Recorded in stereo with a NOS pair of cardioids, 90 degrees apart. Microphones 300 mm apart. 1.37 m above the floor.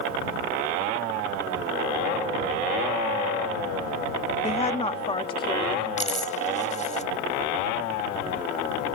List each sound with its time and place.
4.4 s a woman speaking: 20° left; by 5.9 s 15° left
6.0 s a dropped coin: 25° left